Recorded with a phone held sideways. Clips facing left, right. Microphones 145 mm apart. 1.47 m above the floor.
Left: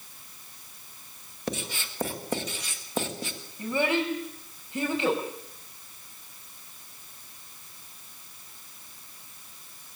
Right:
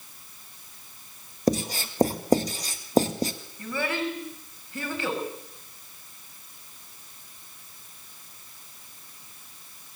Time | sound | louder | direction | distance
1.5 | writing | right 10 dB | 40° right (ahead or behind) | 1.8 m
3.6 | a child speaking | left 3 dB | 20° left (ahead or behind) | 5.5 m